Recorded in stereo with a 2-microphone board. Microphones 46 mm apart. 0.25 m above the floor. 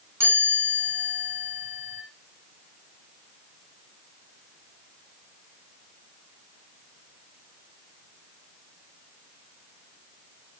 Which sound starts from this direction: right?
A chime, at 0.2 s.